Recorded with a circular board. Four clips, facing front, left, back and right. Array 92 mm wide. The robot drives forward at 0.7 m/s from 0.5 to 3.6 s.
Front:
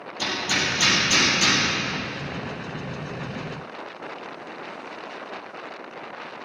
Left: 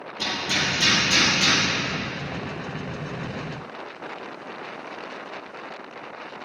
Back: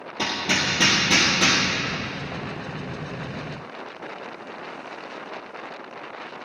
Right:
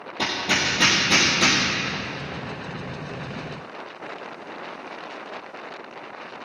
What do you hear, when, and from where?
0.2 s hammering: 140° right, 4 m; by 1.6 s 145° right, 5 m